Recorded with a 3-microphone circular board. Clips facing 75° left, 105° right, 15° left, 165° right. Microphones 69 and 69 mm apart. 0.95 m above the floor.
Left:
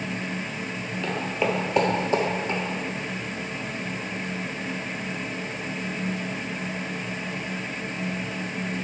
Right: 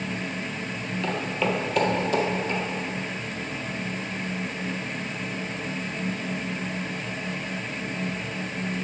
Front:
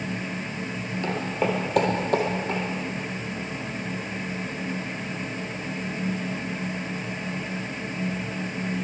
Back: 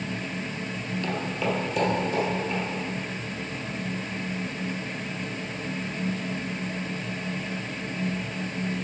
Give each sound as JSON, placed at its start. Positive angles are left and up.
{"t": 1.0, "sound": "footsteps", "azimuth_deg": -20, "distance_m": 1.0}